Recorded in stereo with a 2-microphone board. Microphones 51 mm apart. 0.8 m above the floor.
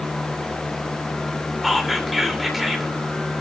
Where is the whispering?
Centre (ahead or behind), 2.5 m.